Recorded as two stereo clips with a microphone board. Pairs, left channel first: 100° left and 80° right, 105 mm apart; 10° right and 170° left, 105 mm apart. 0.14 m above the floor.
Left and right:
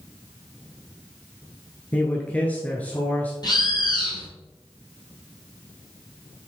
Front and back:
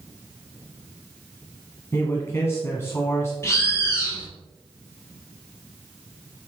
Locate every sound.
1.9 s a man speaking: 35° left, 1.3 m
3.4 s a bird: 55° left, 2 m